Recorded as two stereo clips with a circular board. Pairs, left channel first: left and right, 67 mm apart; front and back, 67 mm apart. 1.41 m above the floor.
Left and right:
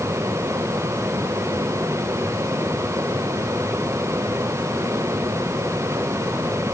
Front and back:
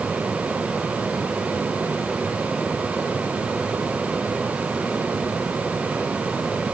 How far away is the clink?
No clink in this recording.